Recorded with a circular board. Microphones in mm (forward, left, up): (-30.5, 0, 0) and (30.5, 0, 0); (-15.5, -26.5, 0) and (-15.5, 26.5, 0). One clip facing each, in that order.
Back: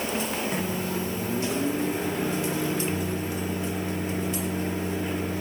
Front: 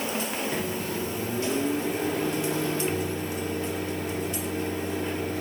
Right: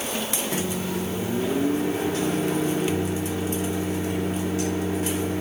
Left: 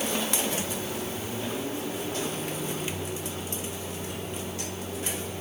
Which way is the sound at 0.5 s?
100° right.